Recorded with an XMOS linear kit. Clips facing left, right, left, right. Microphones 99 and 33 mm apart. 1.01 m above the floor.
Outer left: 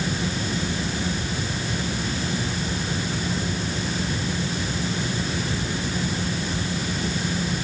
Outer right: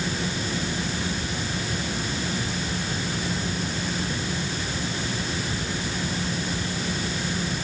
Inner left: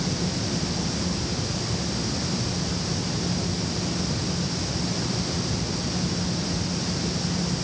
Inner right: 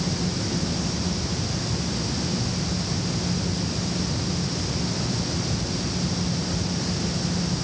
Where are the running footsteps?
I don't hear running footsteps.